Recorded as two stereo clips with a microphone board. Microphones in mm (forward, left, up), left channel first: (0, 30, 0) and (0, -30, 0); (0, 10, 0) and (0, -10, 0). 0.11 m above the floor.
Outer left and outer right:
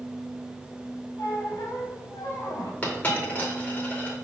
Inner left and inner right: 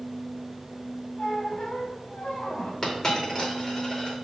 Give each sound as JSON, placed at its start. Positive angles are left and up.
{"t": 1.2, "sound": "a squeak", "side_deg": 75, "distance_m": 1.5}
{"t": 2.8, "sound": "a dropped coin", "side_deg": 25, "distance_m": 1.9}